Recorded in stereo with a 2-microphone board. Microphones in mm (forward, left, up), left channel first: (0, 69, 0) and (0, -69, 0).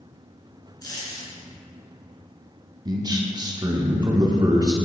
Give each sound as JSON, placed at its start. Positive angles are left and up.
{"t": 0.8, "sound": "a dropped coin", "side_deg": 30, "distance_m": 1.8}
{"t": 2.9, "sound": "a man speaking", "side_deg": -30, "distance_m": 0.8}